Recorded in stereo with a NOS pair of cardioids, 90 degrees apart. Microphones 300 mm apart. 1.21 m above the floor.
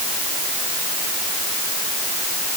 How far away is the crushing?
I don't hear crushing.